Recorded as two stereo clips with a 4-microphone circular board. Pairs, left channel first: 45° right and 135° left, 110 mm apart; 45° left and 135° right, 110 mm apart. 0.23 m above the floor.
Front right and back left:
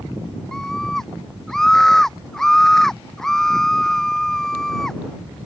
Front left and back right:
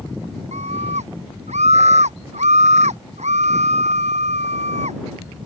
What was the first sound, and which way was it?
A scream, 130° right.